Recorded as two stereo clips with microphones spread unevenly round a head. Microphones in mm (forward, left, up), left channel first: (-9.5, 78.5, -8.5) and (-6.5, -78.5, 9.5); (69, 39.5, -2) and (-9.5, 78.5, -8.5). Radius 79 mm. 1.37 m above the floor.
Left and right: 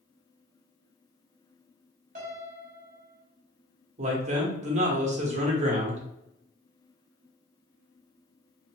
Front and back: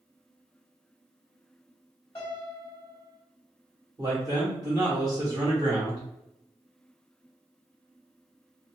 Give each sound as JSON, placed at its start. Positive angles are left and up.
{"t": 2.1, "sound": "a piano", "azimuth_deg": -85, "distance_m": 0.9}
{"t": 4.0, "sound": "a man speaking", "azimuth_deg": -140, "distance_m": 0.9}